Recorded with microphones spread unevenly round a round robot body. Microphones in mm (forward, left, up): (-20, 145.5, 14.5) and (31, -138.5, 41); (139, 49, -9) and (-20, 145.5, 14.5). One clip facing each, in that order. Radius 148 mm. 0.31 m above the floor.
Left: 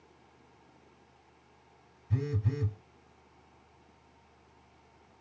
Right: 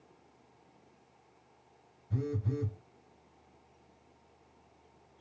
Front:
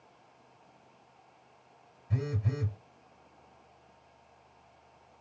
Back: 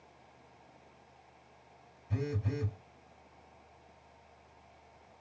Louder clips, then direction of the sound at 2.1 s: Even, front 1 dB; 55° left.